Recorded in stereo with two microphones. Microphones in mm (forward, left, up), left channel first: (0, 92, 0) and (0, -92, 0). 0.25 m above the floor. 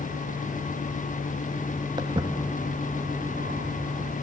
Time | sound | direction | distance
2.0 | footsteps | 20° right (ahead or behind) | 1.7 m